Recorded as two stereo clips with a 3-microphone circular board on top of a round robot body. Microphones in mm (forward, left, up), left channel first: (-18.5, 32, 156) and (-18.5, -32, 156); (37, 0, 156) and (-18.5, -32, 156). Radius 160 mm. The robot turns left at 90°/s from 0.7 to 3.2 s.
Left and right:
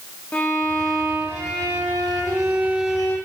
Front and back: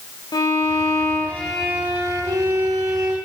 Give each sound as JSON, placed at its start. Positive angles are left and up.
{"t": 0.3, "sound": "a violin", "azimuth_deg": 20, "distance_m": 8.0}